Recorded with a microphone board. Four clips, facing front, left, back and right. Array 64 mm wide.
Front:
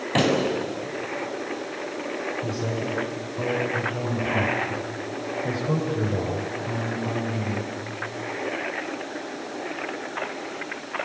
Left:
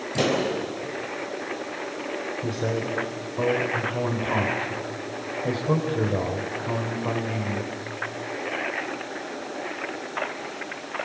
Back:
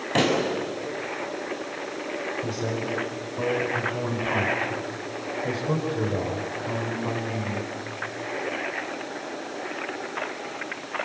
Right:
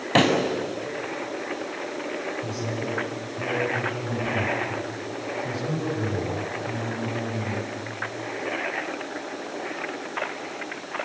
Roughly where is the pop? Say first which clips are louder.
Right 4 dB, front 1 dB; right.